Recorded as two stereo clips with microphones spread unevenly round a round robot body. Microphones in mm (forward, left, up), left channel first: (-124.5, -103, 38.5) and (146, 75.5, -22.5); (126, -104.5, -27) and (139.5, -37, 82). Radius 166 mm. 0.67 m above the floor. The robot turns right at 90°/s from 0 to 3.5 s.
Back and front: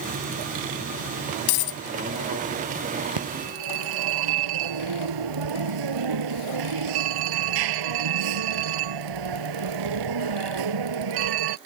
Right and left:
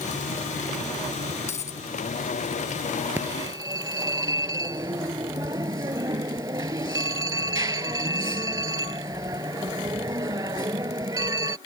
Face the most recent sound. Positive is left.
turn(degrees=60)